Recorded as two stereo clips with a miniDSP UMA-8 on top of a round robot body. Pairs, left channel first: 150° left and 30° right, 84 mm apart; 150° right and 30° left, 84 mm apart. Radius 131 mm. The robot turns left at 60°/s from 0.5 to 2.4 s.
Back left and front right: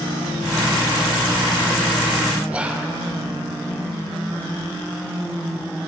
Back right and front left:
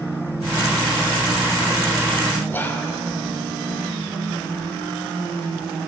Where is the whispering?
100° right, 0.8 m.